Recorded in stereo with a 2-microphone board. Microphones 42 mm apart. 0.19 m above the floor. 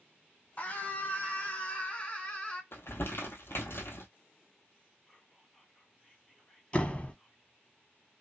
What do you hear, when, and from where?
0.6 s a scream: 35° left (ahead or behind), 1.2 m; by 2.6 s 25° left (ahead or behind), 1.7 m
2.7 s crumpling: 70° left (ahead or behind), 1.0 m
5.1 s whispering: 5° left (ahead or behind), 1.6 m
6.7 s a door slam: 30° left (ahead or behind), 0.8 m